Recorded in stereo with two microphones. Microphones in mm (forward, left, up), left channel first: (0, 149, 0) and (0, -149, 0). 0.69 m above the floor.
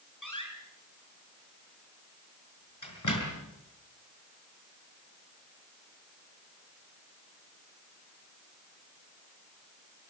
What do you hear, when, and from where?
0.2 s a door slam: 90° left, 6 m